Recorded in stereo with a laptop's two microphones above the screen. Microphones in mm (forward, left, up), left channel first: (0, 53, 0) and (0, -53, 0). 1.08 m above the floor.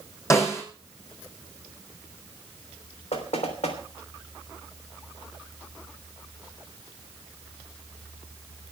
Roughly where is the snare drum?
Left.